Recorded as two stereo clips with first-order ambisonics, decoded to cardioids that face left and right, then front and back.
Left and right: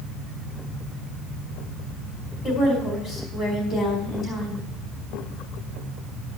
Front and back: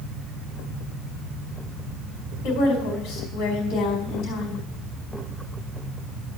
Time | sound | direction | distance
2.4 | a woman speaking | 25° left | 3.5 m